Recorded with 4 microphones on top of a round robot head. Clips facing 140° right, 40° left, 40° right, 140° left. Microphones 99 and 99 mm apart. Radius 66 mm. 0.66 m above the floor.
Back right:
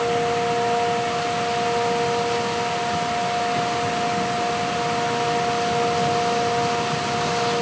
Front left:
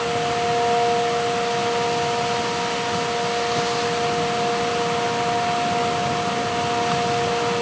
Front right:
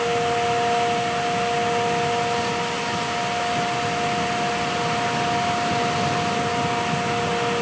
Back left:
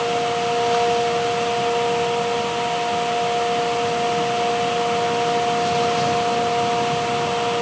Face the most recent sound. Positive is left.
No sound to turn to.